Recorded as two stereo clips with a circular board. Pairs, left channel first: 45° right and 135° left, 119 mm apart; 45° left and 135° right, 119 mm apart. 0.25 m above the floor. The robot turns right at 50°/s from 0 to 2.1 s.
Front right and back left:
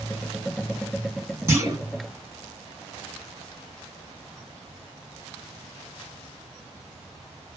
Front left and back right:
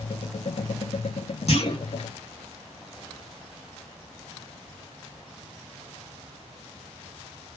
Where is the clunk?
70° left, 0.9 m; by 1.8 s 85° left, 0.9 m.